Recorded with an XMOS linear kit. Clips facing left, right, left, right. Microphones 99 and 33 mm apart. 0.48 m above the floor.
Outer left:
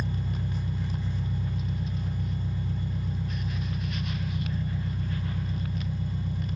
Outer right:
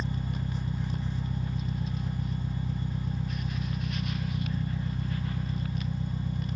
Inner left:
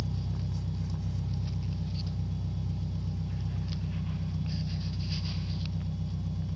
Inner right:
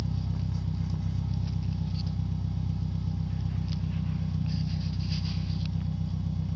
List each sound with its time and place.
0.0 s an engine running: 10° right (ahead or behind), 1.2 m